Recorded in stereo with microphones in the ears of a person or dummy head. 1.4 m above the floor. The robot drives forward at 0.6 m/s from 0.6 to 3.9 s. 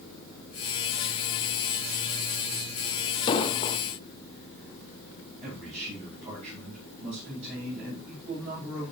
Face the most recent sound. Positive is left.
turn(degrees=-40)  # may be behind; listen again after turning